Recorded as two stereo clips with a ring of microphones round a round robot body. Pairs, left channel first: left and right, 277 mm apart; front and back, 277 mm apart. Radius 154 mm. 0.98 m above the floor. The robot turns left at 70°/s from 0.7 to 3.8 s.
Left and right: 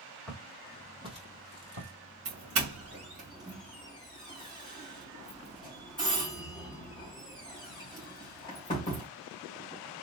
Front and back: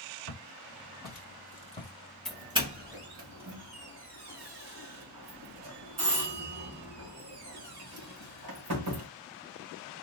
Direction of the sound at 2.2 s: 90° right.